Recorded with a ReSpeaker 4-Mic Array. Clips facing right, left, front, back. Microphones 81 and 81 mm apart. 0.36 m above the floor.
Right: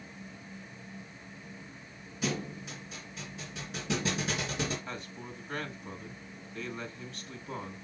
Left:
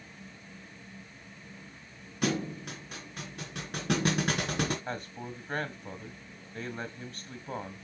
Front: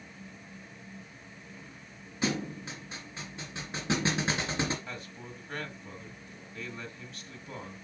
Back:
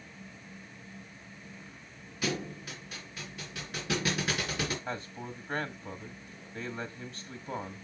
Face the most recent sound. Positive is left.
turn(degrees=130)